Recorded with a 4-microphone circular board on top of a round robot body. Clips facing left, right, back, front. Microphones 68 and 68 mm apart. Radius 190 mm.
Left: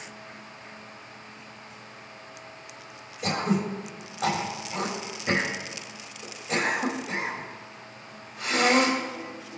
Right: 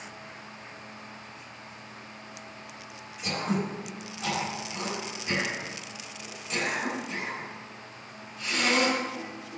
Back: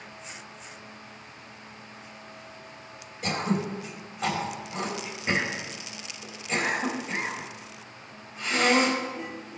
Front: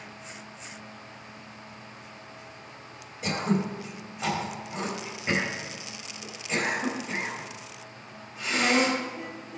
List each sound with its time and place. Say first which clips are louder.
3.2 s throat clearing: left 3 dB, front 1 dB; 85° left, 3.5 m